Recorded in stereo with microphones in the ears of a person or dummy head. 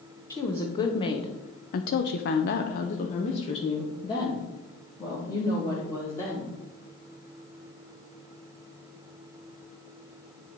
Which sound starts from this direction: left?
A woman speaking, at 0.3 s.